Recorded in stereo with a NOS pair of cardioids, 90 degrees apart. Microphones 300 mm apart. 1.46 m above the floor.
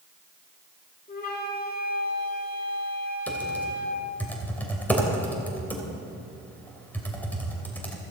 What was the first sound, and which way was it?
A flute, 30° left.